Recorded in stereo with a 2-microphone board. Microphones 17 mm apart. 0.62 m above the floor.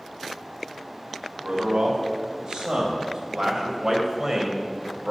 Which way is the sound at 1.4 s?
65° right (ahead or behind).